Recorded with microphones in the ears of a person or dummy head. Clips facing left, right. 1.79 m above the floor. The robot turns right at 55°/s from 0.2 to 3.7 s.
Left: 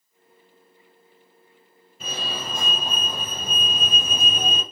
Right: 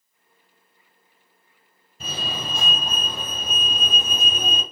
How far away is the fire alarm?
About 1.4 m.